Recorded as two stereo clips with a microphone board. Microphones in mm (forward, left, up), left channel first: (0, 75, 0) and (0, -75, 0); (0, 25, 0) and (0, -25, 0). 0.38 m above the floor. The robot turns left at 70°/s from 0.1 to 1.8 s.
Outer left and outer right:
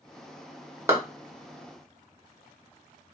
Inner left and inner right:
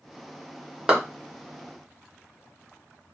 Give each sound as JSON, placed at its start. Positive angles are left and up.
{"t": 0.9, "sound": "a clap", "side_deg": -20, "distance_m": 1.0}